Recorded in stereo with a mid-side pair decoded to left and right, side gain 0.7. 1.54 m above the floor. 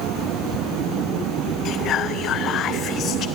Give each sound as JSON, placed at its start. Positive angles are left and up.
{"t": 1.6, "sound": "whispering", "azimuth_deg": 45, "distance_m": 0.5}